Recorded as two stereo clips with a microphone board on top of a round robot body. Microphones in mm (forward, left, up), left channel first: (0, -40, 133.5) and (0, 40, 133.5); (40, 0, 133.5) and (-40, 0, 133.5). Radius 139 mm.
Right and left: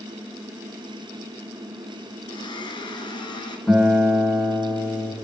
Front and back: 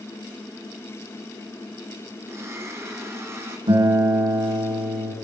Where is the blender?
120° right, 3 m.